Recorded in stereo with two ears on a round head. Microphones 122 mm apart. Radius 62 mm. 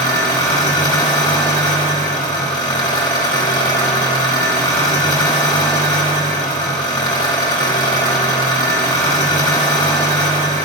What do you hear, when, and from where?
0.0 s an engine running: 30° left (ahead or behind), 1.0 m